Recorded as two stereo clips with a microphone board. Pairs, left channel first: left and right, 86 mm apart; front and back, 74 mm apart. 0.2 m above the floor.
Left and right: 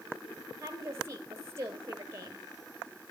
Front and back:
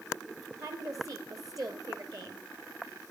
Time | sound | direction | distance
0.6 | a woman speaking | 145° right | 4 m